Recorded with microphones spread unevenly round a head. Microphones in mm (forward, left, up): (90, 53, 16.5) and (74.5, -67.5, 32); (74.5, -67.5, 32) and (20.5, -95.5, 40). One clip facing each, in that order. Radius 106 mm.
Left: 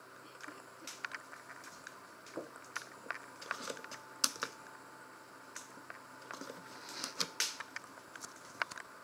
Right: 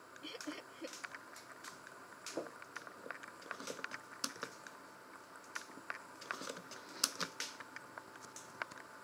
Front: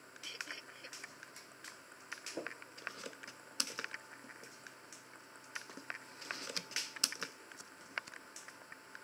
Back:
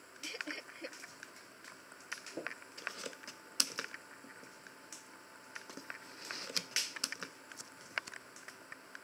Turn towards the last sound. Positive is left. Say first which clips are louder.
# right 7 dB, back 4 dB
turn(degrees=-110)